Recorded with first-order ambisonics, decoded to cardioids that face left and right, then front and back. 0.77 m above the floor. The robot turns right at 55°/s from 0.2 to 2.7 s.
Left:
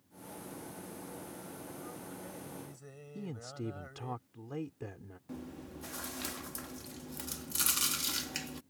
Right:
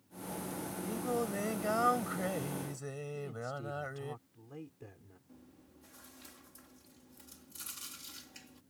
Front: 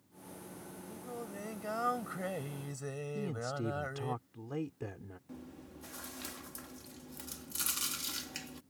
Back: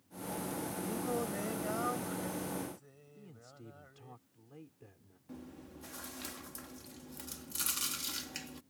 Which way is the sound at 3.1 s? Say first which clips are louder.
Left 1 dB, front 17 dB; 30° left.